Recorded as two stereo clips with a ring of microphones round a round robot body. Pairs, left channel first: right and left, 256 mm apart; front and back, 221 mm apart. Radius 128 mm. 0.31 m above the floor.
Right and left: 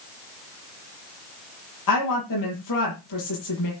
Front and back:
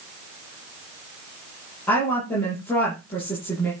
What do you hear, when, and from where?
1.9 s a woman speaking: 85° right, 8 m